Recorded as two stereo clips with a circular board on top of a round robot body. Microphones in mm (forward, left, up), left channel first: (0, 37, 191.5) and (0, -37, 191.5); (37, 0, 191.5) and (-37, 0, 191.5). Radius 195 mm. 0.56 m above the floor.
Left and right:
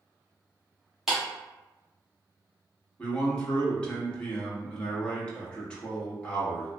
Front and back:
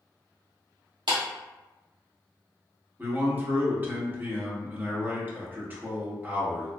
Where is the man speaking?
150° left, 1.3 m.